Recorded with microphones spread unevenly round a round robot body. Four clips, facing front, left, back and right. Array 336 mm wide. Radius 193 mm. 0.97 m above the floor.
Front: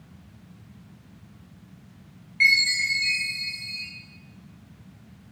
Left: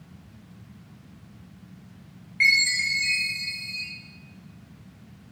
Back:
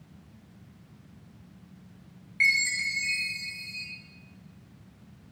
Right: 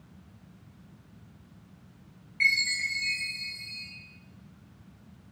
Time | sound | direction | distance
2.4 | a chime | 135° right | 1.0 m